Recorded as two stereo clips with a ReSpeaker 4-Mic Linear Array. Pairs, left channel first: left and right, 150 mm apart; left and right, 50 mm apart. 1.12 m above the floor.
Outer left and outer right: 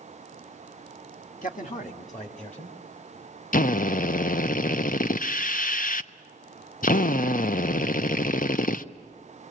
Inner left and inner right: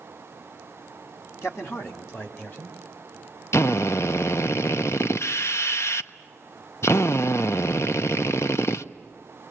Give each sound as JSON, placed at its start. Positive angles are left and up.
{"t": 1.4, "sound": "a man speaking", "side_deg": 60, "distance_m": 1.9}
{"t": 3.5, "sound": "a drill", "side_deg": 65, "distance_m": 0.5}